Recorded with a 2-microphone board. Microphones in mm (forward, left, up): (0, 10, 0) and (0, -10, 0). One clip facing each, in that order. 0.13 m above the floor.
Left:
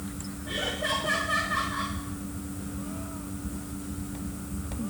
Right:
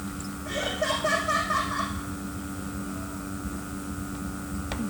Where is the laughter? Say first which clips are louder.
Right 2 dB; 65° right (ahead or behind), 6.5 m.